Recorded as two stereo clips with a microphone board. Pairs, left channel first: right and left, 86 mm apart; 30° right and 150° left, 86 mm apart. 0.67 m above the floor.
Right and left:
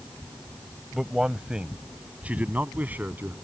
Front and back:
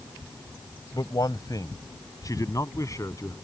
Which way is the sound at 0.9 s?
5° left.